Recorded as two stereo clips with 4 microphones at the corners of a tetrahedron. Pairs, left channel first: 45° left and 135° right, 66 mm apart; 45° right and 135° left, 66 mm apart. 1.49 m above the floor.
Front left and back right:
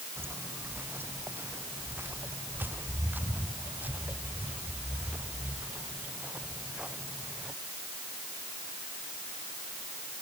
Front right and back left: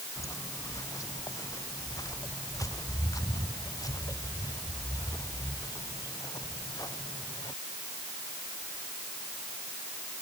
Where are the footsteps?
80° right; by 7.5 s 60° right.